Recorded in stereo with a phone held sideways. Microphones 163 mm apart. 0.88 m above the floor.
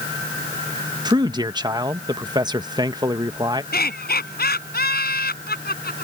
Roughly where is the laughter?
Left.